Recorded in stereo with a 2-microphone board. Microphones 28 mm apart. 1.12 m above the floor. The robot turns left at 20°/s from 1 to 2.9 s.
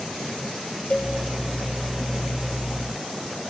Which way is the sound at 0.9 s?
50° left (ahead or behind).